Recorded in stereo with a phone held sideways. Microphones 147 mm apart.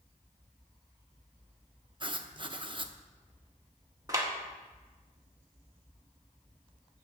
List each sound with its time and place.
2.0 s writing: 35° right (ahead or behind), 0.8 m
4.1 s a clap: 20° right (ahead or behind), 1.9 m